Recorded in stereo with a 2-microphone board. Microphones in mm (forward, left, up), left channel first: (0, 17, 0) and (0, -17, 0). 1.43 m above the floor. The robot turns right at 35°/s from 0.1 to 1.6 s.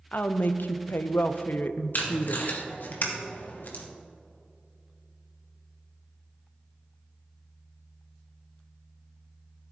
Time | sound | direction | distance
0.1 | a woman speaking | 60° left | 0.6 m
1.9 | tape being pulled | 65° left (ahead or behind) | 1.7 m